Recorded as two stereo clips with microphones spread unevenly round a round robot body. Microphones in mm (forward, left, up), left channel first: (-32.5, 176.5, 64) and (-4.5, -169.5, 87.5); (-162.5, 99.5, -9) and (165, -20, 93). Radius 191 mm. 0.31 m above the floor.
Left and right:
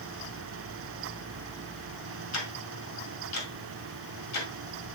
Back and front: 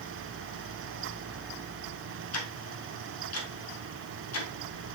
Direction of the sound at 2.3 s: 130° left.